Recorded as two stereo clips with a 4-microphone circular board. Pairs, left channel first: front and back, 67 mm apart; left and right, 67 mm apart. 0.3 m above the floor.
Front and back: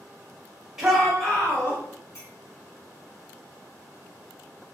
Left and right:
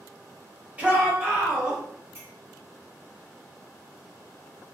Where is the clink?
40° right, 1.4 m.